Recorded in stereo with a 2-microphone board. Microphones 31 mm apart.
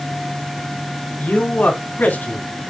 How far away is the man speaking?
About 2.5 m.